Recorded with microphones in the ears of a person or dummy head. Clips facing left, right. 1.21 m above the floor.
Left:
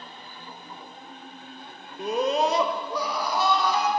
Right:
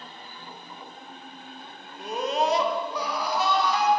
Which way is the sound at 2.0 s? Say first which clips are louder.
Left 3 dB; 55° left (ahead or behind).